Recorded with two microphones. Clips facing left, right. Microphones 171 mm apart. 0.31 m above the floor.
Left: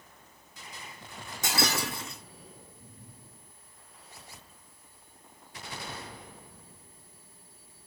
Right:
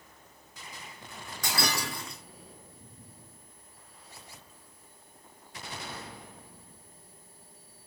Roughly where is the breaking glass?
Left.